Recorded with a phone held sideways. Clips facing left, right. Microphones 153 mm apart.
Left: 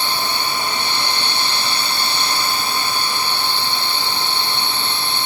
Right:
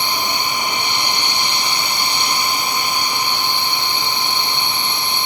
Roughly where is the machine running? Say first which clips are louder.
Right 1 dB; centre.